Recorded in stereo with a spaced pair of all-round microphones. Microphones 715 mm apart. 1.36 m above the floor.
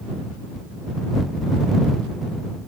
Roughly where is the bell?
No bell in this recording.